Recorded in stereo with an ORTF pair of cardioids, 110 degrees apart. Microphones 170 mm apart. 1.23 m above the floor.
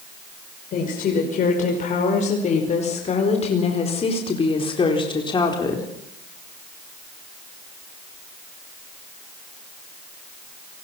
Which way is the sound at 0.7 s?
50° left.